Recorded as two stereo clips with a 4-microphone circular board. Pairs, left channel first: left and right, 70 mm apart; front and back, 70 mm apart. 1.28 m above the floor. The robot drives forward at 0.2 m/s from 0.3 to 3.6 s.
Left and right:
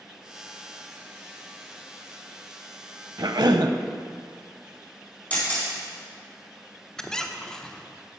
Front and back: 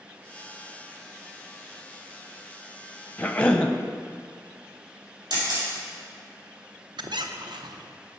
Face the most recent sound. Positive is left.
turn(degrees=170)